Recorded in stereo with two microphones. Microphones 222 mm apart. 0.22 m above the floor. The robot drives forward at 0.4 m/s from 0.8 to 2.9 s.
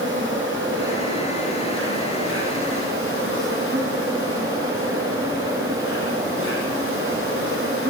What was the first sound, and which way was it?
An insect, 60° right (ahead or behind).